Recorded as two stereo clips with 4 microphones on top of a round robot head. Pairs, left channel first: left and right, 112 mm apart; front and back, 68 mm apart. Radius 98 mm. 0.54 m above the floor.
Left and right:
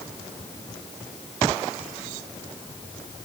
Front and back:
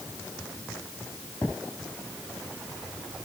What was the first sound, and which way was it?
Only background noise.